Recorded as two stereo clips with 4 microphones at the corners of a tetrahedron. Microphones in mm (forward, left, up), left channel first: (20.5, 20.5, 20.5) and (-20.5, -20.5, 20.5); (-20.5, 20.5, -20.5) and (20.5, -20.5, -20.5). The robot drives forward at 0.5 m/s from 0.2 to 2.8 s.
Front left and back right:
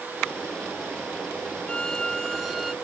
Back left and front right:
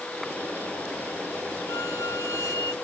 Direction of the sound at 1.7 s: 115° left.